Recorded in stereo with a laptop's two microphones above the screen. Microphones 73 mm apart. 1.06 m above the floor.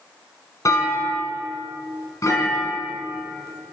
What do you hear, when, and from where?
0.7 s a clunk: 50° left (ahead or behind), 2.5 m